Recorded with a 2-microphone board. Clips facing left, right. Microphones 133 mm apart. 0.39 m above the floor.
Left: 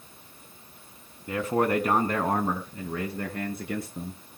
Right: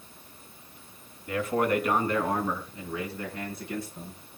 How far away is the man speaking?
About 2.5 m.